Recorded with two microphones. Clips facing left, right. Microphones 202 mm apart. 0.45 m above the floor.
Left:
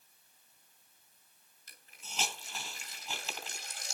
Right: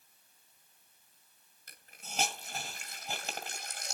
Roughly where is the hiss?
Right.